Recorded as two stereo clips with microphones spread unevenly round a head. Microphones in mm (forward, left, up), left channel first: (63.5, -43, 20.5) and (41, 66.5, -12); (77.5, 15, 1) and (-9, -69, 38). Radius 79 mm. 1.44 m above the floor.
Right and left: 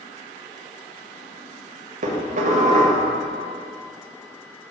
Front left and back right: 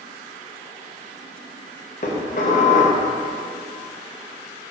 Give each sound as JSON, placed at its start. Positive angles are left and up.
{"t": 2.0, "sound": "dishes clattering", "azimuth_deg": 90, "distance_m": 1.1}